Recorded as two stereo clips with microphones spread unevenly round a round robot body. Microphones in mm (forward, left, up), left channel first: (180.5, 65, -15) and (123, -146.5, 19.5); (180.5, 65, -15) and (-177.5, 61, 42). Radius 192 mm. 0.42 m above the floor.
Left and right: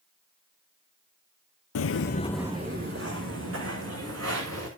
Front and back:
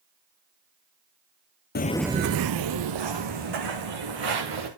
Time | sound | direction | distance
1.8 | footsteps | 65° left | 0.7 m